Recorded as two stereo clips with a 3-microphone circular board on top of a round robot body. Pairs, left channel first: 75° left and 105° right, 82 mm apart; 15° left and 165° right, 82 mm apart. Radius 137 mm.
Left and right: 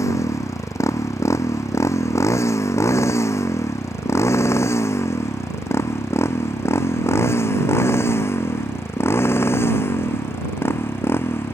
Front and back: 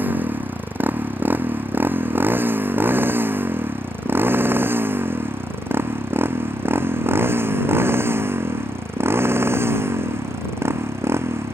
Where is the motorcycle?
125° left; by 11.6 s 135° left.